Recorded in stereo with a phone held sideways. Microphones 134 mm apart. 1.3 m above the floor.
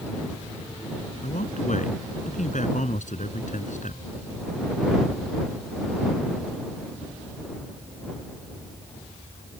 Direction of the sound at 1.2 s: 75° left (ahead or behind).